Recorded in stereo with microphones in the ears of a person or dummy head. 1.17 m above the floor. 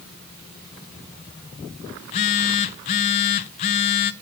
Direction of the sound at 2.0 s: 30° left (ahead or behind).